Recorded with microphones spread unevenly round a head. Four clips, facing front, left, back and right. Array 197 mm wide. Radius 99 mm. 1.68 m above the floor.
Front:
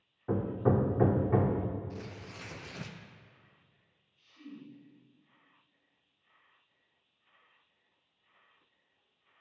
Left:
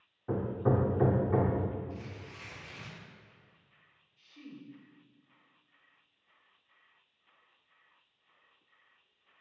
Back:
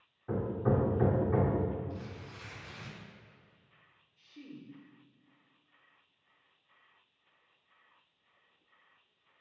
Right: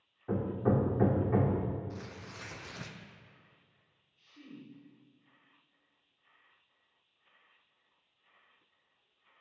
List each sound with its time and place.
0.3 s hammering: 20° left, 1.5 m
1.9 s tearing paper: 25° right, 0.8 m
4.2 s a woman speaking: 175° left, 4 m